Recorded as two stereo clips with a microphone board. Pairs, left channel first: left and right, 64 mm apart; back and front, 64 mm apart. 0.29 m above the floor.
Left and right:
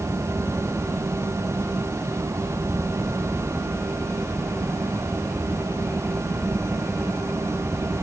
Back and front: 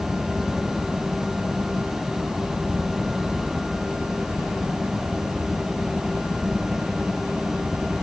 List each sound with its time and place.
0.0 s a helicopter: 60° right; by 8.0 s 30° right